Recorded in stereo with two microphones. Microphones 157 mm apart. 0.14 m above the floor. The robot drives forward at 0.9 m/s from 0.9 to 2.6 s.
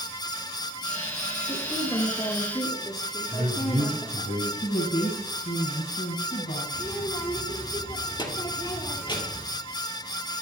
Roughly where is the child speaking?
Left.